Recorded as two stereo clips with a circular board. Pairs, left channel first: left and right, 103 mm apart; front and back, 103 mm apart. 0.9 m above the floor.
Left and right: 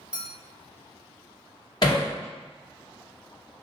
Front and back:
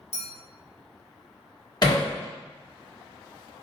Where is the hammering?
45° left, 1.4 m.